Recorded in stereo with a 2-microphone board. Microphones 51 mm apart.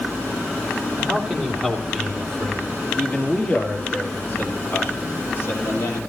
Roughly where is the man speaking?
Centre.